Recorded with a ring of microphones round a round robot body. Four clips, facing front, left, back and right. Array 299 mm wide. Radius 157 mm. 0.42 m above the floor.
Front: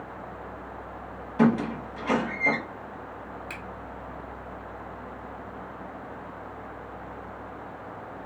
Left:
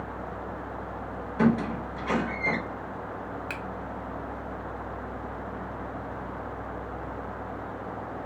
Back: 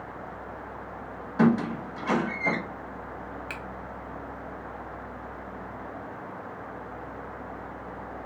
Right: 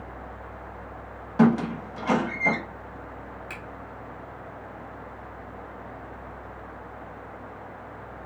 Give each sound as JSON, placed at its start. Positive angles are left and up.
{"t": 1.4, "sound": "a squeak", "azimuth_deg": -100, "distance_m": 0.9}
{"t": 3.5, "sound": "a finger snap", "azimuth_deg": 110, "distance_m": 0.6}